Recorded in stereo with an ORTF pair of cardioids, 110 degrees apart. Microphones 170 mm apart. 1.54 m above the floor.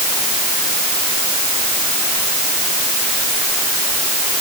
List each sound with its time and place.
Only background noise.